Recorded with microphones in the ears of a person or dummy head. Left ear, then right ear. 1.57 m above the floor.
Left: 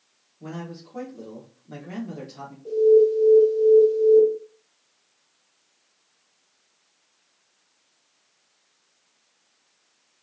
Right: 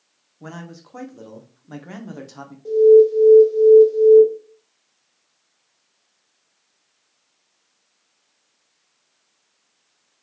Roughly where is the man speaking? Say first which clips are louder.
Even; right.